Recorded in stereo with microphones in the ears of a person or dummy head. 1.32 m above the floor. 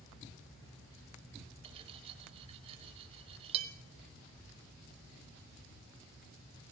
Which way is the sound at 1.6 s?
30° right (ahead or behind).